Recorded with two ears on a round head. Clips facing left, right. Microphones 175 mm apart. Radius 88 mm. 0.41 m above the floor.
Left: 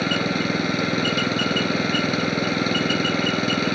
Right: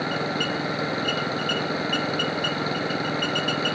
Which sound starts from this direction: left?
An engine running, at 0.0 s.